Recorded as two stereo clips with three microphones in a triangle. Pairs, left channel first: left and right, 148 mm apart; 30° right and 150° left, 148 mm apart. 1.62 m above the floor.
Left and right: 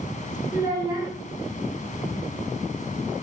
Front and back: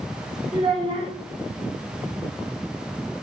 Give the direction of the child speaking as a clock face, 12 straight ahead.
5 o'clock.